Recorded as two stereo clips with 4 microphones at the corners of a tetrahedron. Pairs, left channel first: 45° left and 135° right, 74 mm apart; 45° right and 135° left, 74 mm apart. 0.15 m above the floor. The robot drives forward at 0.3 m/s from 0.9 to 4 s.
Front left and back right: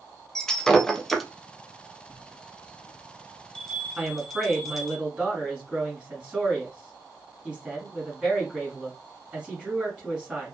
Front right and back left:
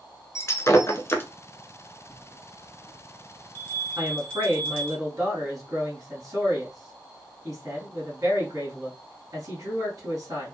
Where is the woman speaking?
150° left, 1.8 m.